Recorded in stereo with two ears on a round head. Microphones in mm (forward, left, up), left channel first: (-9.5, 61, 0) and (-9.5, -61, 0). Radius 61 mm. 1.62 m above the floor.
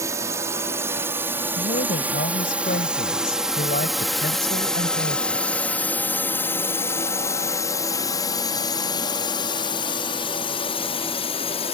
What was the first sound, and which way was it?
A drone, 25° right (ahead or behind).